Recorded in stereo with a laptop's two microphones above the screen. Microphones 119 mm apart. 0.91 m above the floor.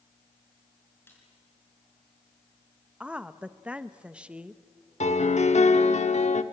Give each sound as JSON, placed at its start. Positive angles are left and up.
{"t": 1.1, "sound": "a snare drum", "side_deg": 20, "distance_m": 5.0}
{"t": 3.0, "sound": "a woman speaking", "side_deg": -10, "distance_m": 0.6}
{"t": 5.0, "sound": "a piano", "side_deg": 70, "distance_m": 1.1}